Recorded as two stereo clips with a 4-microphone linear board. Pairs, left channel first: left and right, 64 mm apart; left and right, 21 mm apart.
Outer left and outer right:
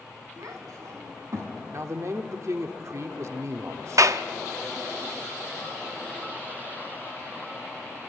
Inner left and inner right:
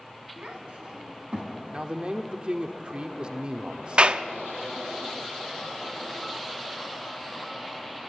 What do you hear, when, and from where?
0.4 s a child speaking: 70° right (ahead or behind), 3 m; by 1.6 s 55° right (ahead or behind), 3.5 m
1.7 s a man speaking: 55° right (ahead or behind), 1.3 m
4.0 s a clap: 60° right (ahead or behind), 0.5 m